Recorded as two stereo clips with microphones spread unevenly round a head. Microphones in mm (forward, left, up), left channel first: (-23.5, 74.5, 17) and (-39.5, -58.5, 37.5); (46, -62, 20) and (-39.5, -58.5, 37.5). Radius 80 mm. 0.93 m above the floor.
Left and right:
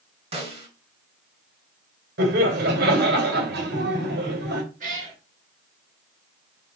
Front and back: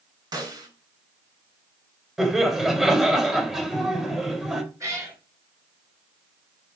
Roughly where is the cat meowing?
Behind right.